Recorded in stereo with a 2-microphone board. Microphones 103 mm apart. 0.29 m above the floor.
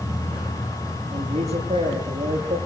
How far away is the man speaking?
About 9.5 m.